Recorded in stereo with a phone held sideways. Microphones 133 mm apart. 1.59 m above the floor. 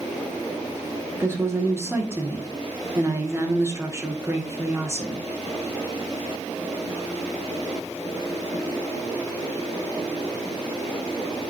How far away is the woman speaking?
About 2.0 m.